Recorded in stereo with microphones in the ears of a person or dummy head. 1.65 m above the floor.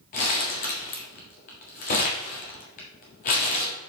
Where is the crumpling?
45° left (ahead or behind), 1.5 m.